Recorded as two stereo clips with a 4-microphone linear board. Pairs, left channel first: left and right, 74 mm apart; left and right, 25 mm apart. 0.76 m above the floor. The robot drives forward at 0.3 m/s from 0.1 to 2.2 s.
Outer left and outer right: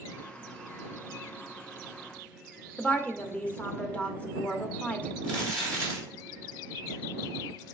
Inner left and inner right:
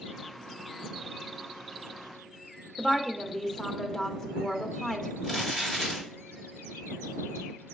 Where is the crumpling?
20° left (ahead or behind), 2.5 m.